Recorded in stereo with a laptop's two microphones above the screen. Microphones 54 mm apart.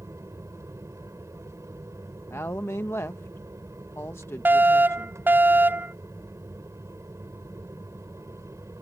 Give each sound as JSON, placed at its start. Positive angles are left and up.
{"t": 0.0, "sound": "an aircraft", "side_deg": -65}
{"t": 2.3, "sound": "a woman speaking", "side_deg": 55}
{"t": 4.5, "sound": "a fire alarm", "side_deg": -35}